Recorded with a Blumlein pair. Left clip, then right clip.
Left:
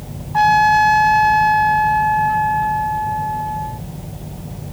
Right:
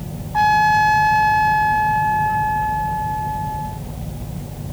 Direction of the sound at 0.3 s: 10° left.